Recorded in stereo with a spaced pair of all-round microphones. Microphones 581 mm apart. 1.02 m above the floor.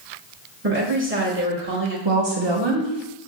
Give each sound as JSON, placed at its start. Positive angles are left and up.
{"t": 0.6, "sound": "a woman speaking", "side_deg": -20, "distance_m": 1.2}
{"t": 2.0, "sound": "a woman speaking", "side_deg": -50, "distance_m": 0.9}